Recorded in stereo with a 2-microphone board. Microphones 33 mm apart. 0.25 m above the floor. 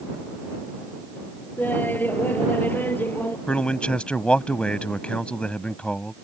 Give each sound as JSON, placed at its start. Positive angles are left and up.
{"t": 1.6, "sound": "laughter", "side_deg": 75}
{"t": 3.5, "sound": "a man speaking", "side_deg": 35}